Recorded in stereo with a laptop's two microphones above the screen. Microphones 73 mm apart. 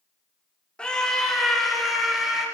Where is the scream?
15° left (ahead or behind), 2 m; by 2.4 s 5° right (ahead or behind), 4.5 m.